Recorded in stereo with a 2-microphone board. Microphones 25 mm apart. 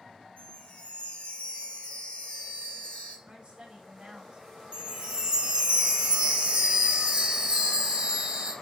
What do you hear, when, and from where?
0.4 s a chime: 75° left (ahead or behind), 3.5 m
3.3 s a woman speaking: 50° right (ahead or behind), 1.9 m
4.7 s a chime: 45° right (ahead or behind), 0.8 m